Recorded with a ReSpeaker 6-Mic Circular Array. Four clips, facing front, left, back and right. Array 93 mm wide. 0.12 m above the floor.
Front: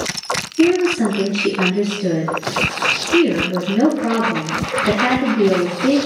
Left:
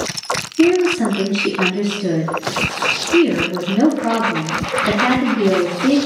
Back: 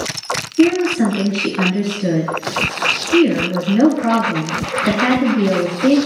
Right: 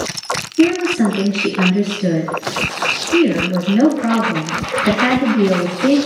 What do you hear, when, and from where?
0.6 s a woman speaking: 115° right, 1.9 m